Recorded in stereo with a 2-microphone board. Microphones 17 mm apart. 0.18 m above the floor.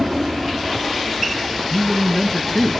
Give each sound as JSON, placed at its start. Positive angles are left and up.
{"t": 1.7, "sound": "a man speaking", "side_deg": 40, "distance_m": 2.5}